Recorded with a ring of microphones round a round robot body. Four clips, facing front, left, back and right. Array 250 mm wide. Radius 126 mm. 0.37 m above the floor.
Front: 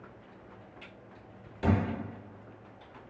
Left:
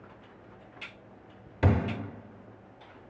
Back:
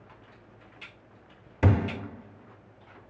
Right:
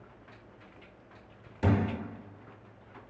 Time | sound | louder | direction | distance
1.6 | a thud | left 1 dB, back 2 dB | 145° left | 0.5 m